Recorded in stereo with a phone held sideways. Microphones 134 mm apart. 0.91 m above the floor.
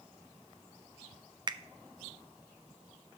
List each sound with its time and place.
1.5 s a finger snap: 35° right (ahead or behind), 0.5 m